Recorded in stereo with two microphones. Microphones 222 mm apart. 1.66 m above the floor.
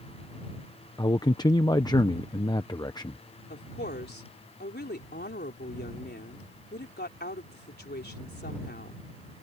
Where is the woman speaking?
50° left (ahead or behind).